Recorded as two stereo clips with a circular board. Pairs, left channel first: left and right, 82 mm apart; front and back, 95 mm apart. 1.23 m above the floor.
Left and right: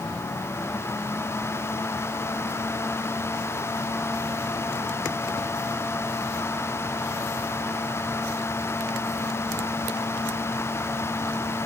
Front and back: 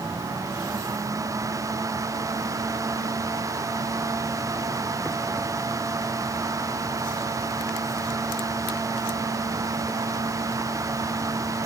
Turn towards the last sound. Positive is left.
No sound to turn to.